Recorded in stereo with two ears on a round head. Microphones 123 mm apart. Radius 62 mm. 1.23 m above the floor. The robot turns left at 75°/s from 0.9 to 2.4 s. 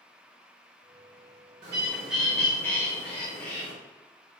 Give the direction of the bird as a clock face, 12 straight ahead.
5 o'clock.